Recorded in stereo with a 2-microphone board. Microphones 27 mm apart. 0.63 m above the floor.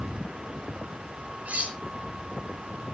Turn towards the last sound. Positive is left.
turn(degrees=-90)